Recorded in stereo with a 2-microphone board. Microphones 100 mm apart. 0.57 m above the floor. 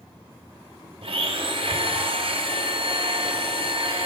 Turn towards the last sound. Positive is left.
turn(degrees=-65)  # may be behind; listen again after turning